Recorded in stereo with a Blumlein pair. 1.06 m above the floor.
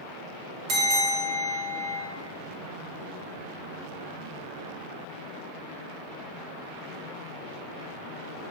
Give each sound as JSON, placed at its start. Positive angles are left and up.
{"t": 0.7, "sound": "a bell", "azimuth_deg": -35, "distance_m": 0.7}